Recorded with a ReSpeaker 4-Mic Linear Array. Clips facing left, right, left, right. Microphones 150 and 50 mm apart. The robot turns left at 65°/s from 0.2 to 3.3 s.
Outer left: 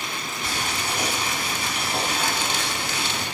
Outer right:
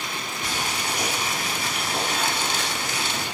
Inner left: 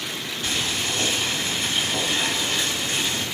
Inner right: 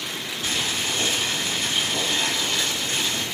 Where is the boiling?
20° right (ahead or behind), 1.6 m; by 3.2 s 20° left (ahead or behind), 1.6 m.